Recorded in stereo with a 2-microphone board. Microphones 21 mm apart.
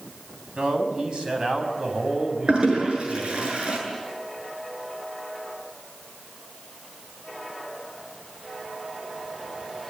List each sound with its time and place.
0.6 s a man speaking: 50° right (ahead or behind), 6 m; by 3.5 s 25° right (ahead or behind), 5.5 m
2.5 s a toilet flushing: 60° right (ahead or behind), 8.5 m